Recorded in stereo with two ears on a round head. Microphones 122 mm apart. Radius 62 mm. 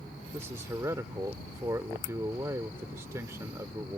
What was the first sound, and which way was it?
A man speaking, 20° right (ahead or behind).